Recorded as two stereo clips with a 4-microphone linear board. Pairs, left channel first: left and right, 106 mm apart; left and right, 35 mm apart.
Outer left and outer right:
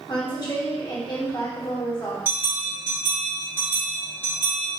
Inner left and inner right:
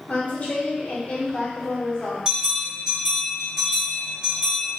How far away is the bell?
About 1.8 m.